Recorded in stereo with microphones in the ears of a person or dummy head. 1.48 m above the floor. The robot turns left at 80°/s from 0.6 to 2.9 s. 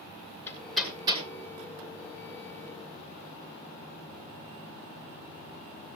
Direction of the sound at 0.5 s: 15° left (ahead or behind).